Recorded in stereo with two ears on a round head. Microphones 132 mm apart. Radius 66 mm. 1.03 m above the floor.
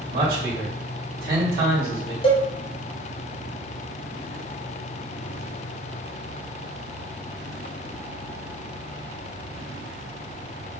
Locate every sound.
0.1 s a man speaking: 70° right (ahead or behind), 1.7 m
2.2 s a cowbell: 35° left (ahead or behind), 0.6 m